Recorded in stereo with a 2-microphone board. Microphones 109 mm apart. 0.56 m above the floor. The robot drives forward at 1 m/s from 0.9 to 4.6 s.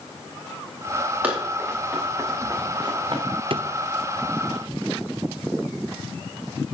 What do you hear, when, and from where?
1.2 s running footsteps: 15° right (ahead or behind), 6 m; by 3.2 s 50° right (ahead or behind), 3 m
3.5 s a drawer: 55° right (ahead or behind), 0.7 m